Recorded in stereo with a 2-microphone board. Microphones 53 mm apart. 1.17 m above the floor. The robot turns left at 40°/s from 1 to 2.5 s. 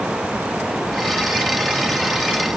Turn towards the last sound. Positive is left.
No sound to turn to.